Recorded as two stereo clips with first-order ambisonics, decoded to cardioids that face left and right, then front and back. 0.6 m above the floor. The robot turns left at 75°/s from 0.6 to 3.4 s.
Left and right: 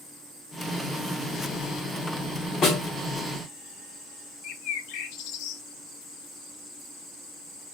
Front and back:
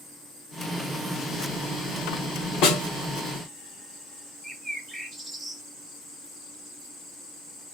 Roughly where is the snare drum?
Ahead left.